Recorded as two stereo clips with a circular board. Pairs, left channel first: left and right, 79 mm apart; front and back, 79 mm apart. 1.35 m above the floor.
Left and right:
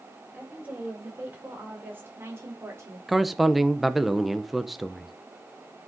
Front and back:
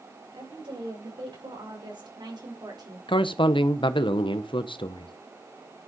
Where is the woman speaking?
160° right, 6.5 m; by 3.0 s 140° right, 4 m.